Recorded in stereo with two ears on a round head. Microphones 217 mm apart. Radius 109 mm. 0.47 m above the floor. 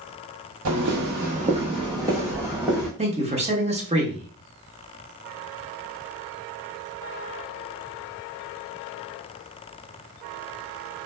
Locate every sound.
0.7 s footsteps: 55° right (ahead or behind), 0.9 m; by 2.9 s 5° right (ahead or behind), 1.7 m
3.0 s a man speaking: 25° right (ahead or behind), 1.0 m